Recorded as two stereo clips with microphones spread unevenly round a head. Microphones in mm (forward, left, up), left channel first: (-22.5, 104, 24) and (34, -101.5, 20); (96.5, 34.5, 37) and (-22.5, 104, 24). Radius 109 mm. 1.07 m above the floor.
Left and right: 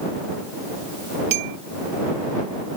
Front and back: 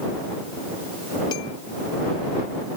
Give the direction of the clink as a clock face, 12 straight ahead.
3 o'clock.